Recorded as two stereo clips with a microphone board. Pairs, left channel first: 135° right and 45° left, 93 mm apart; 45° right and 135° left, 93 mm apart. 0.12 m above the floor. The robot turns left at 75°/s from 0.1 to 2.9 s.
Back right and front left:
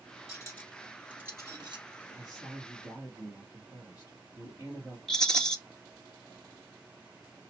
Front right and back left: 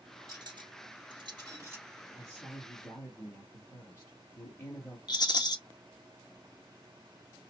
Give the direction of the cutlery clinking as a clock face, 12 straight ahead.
6 o'clock.